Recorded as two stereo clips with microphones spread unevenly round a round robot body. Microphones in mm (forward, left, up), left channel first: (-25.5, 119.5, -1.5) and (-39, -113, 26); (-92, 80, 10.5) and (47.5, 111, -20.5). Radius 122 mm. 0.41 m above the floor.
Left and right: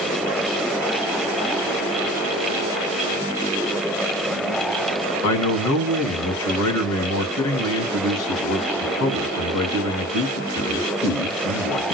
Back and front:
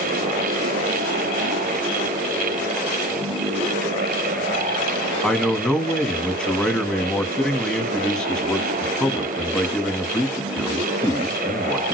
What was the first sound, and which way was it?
A man speaking, 105° left.